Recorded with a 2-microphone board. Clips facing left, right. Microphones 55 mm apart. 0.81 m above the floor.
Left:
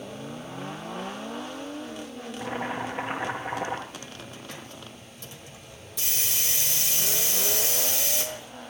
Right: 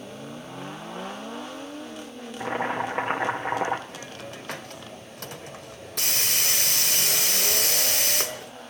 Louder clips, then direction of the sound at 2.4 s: Right 4 dB; 55° right (ahead or behind).